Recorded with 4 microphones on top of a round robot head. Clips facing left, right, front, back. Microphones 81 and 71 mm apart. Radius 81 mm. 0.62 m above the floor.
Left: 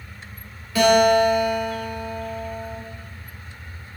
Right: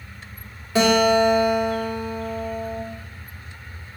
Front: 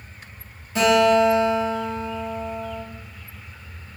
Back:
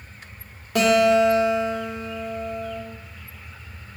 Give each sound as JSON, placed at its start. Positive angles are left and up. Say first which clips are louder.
{"t": 0.8, "sound": "a guitar", "louder": "left 1 dB, even", "azimuth_deg": -155, "distance_m": 1.1}